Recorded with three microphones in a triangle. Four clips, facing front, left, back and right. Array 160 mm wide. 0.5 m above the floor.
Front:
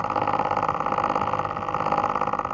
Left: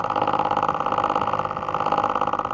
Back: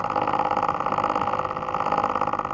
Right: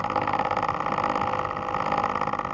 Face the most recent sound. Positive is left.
No sound to turn to.